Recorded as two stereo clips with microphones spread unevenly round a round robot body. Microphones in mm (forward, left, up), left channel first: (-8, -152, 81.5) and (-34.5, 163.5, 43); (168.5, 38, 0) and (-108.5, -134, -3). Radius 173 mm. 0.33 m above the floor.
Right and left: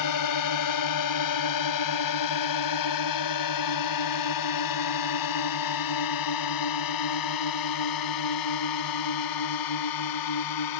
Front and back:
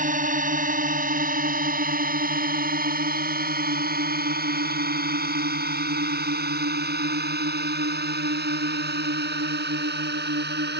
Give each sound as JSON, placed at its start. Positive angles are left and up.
{"t": 0.0, "sound": "a drone", "azimuth_deg": -85}